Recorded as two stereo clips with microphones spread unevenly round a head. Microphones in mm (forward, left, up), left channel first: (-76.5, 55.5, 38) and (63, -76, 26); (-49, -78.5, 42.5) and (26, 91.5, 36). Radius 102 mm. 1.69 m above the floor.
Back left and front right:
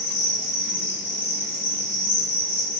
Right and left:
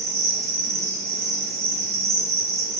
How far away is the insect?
About 1.0 m.